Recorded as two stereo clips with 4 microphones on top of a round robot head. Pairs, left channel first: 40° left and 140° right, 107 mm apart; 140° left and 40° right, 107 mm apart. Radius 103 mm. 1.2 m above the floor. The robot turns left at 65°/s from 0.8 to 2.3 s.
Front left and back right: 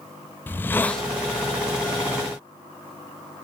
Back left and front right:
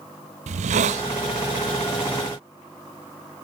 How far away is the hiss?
About 0.9 m.